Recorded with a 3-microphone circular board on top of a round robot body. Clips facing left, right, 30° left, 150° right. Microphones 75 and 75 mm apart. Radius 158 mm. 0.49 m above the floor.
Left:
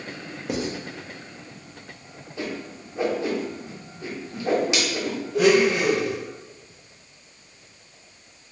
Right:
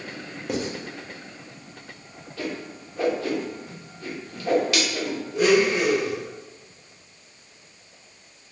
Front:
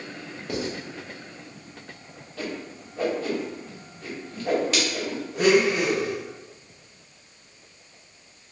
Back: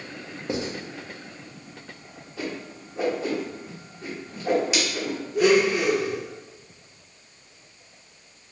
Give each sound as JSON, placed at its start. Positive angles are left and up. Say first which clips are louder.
{"t": 0.5, "sound": "writing", "louder": "even, back 1 dB", "azimuth_deg": 180, "distance_m": 0.9}
{"t": 2.4, "sound": "a whoosh", "louder": "even, even", "azimuth_deg": 145, "distance_m": 1.3}
{"t": 5.3, "sound": "a blender", "louder": "left 1 dB, back 1 dB", "azimuth_deg": 80, "distance_m": 0.9}